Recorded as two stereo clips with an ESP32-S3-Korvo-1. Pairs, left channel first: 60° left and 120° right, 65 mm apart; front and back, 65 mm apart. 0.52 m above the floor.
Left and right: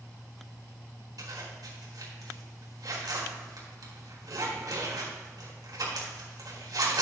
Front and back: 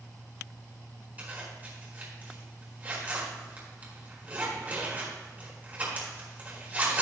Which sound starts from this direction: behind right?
A zipper, at 1.2 s.